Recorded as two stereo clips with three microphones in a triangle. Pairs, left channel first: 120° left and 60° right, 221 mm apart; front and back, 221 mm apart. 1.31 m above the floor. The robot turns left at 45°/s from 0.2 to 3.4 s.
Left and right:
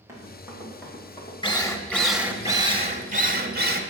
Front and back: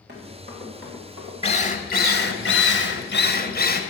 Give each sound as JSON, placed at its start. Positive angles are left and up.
{"t": 0.1, "sound": "running footsteps", "azimuth_deg": -140, "distance_m": 5.0}
{"t": 1.4, "sound": "a drill", "azimuth_deg": 60, "distance_m": 1.2}